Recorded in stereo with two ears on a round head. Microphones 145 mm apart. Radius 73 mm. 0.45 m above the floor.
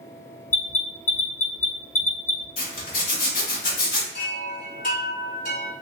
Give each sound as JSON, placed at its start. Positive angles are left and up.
{"t": 0.5, "sound": "an alarm", "side_deg": 55, "distance_m": 1.0}
{"t": 2.6, "sound": "a zipper", "side_deg": 55, "distance_m": 1.2}
{"t": 4.1, "sound": "a chime", "side_deg": 50, "distance_m": 1.8}